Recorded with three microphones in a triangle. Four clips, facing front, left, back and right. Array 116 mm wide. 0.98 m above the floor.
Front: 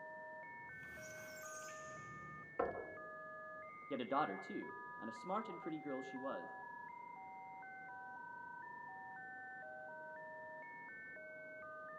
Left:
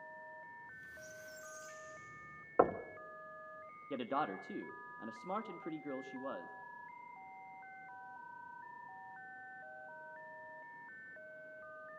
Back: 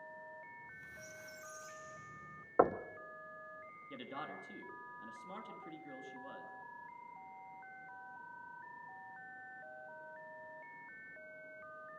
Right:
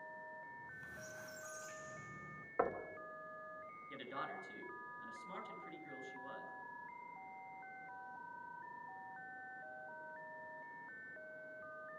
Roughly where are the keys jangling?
No keys jangling in this recording.